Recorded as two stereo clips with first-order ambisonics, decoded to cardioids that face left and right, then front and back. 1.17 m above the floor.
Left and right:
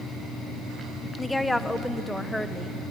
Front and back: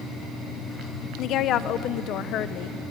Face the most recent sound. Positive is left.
turn(degrees=5)